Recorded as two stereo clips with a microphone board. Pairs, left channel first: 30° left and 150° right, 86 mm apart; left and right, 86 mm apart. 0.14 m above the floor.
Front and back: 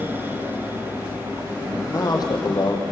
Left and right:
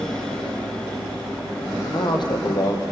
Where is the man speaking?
75° left, 5 m; by 2.8 s 55° left, 3.5 m.